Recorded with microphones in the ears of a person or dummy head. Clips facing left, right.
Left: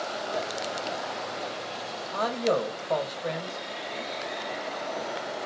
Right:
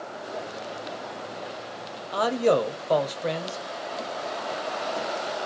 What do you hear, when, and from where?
2.1 s a man speaking: 50° right (ahead or behind), 0.6 m